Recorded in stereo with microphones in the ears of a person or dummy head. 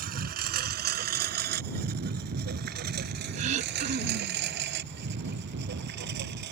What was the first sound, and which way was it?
A lawn mower, 50° right (ahead or behind).